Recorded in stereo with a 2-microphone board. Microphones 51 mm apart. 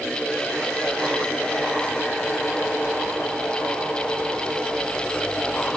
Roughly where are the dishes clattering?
I don't hear dishes clattering.